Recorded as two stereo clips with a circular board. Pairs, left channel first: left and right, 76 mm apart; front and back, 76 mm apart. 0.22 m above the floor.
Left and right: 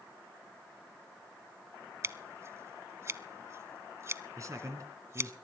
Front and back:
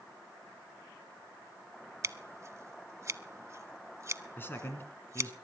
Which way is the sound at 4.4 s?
55° right.